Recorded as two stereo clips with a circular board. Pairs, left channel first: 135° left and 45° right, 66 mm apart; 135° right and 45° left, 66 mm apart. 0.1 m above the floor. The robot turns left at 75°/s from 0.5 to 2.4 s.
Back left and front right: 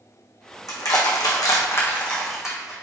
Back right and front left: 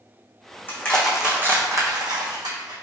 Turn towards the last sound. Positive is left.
turn(degrees=40)